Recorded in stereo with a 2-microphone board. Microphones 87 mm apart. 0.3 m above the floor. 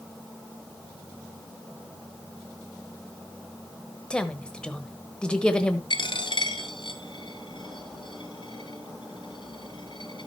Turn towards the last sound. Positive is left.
turn(degrees=65)  # may be behind; listen again after turning